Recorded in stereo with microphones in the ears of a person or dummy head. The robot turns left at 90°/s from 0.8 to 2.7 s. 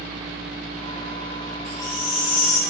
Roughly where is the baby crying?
Behind.